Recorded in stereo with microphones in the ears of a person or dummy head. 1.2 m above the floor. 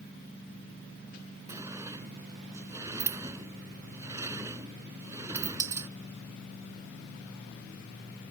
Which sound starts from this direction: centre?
A sliding door, at 1.5 s.